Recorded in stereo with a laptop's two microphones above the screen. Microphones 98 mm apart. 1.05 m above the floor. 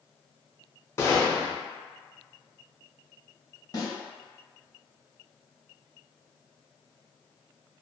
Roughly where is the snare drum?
Left.